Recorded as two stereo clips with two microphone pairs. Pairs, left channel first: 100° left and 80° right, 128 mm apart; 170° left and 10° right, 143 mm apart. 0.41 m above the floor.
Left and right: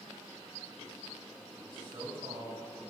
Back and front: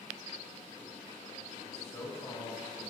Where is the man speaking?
125° right, 2 m.